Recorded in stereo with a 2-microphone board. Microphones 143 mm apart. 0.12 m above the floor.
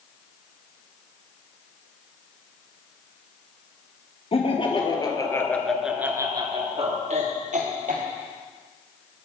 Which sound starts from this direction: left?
Laughter, at 4.3 s.